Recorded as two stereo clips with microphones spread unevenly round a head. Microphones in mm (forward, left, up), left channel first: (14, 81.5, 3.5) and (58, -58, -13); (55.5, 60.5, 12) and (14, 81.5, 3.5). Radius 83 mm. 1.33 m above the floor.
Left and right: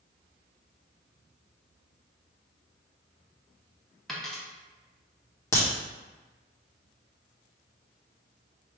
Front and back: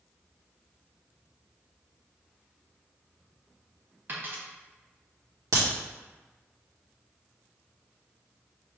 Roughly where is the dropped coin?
Behind.